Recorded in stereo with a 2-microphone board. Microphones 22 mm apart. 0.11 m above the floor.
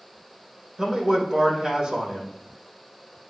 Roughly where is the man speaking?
Right.